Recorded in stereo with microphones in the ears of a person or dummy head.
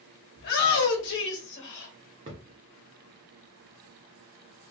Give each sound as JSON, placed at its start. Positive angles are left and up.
{"t": 0.4, "sound": "a shout", "side_deg": 55, "distance_m": 1.2}
{"t": 2.3, "sound": "a thud", "side_deg": -25, "distance_m": 1.0}